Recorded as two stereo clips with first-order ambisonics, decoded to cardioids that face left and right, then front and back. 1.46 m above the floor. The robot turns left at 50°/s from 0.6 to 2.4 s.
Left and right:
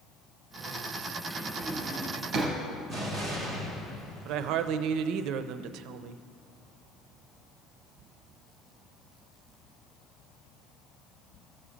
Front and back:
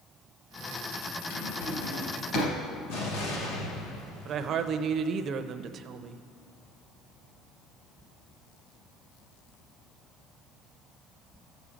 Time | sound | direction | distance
1.3 | a drawer | straight ahead | 2.5 m
2.9 | an explosion | 5° right | 2.5 m
4.2 | a woman speaking | 125° right | 0.5 m